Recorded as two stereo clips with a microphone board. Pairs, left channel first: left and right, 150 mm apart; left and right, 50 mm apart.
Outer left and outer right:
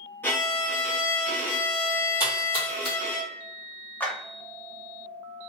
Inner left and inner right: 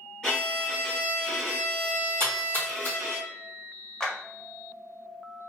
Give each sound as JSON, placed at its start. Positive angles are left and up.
{"t": 0.2, "sound": "a violin", "side_deg": 15, "distance_m": 1.3}
{"t": 2.2, "sound": "a splash", "side_deg": 35, "distance_m": 1.4}
{"t": 4.0, "sound": "a clap", "side_deg": 10, "distance_m": 0.8}